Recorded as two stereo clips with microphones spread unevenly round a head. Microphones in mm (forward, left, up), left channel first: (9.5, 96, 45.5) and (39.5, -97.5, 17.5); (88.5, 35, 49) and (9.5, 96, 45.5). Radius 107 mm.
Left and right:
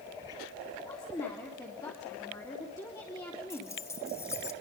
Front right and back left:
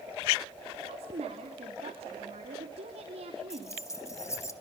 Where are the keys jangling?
20° left, 2 m.